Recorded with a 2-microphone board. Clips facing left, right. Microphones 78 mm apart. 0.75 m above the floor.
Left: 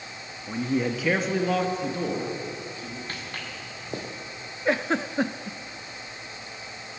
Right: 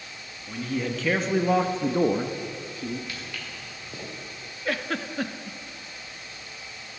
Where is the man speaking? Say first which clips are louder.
Left 3 dB; 30° left (ahead or behind), 1.4 m; by 3.0 s 55° right (ahead or behind), 1.9 m.